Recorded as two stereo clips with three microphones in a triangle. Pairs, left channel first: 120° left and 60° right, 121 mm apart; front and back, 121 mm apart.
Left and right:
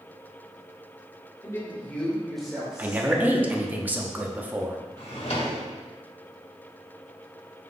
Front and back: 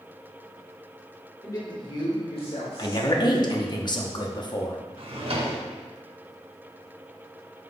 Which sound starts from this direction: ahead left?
A man speaking, at 1.4 s.